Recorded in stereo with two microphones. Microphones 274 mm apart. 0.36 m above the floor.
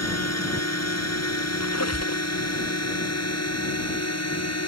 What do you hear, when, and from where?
0.0 s a drone: 65° left (ahead or behind)
1.6 s a squeak: 65° left (ahead or behind)